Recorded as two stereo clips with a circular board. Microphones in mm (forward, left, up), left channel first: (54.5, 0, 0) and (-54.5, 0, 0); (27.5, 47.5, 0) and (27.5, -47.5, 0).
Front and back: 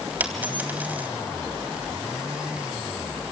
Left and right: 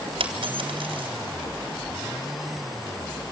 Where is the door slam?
No door slam in this recording.